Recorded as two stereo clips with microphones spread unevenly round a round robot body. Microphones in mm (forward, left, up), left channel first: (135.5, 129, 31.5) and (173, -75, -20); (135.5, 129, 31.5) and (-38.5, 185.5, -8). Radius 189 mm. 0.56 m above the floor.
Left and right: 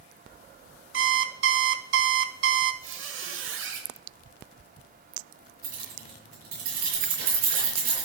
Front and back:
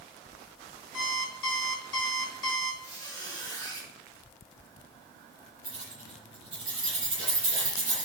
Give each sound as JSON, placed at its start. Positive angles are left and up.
{"t": 0.9, "sound": "an alarm clock", "azimuth_deg": -60, "distance_m": 1.0}
{"t": 2.8, "sound": "a squeak", "azimuth_deg": -100, "distance_m": 1.6}
{"t": 5.6, "sound": "keys jangling", "azimuth_deg": -85, "distance_m": 6.0}